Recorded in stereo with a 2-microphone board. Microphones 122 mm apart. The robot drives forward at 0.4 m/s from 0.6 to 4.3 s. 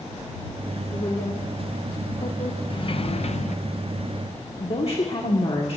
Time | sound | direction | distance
0.9 | a woman speaking | 45° left (ahead or behind) | 1.5 m
2.7 | a sliding door | 40° left (ahead or behind) | 0.7 m
4.6 | a woman speaking | 50° left (ahead or behind) | 1.7 m